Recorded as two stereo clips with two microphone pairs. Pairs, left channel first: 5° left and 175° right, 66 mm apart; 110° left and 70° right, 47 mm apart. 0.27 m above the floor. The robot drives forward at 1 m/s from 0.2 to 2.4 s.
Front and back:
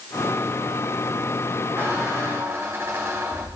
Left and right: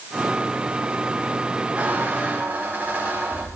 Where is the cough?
No cough in this recording.